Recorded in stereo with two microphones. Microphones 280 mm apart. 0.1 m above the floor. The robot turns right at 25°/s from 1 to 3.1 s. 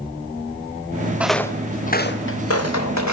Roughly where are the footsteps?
Centre.